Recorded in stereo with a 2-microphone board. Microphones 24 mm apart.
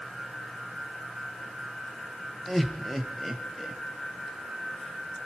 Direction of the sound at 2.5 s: 10° left (ahead or behind).